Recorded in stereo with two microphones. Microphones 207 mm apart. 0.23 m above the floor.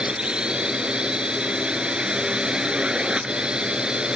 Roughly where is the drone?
Centre.